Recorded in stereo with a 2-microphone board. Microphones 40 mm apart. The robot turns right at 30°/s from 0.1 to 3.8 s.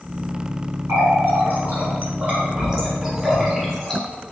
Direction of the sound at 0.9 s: 55° right (ahead or behind).